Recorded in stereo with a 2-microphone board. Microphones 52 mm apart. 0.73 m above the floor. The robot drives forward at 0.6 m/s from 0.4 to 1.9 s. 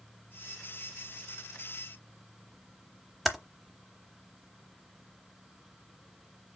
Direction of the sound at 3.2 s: 5° right (ahead or behind).